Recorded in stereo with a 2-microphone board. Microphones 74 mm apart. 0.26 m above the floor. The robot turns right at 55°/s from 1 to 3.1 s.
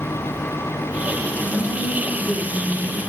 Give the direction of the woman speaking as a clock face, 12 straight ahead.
1 o'clock.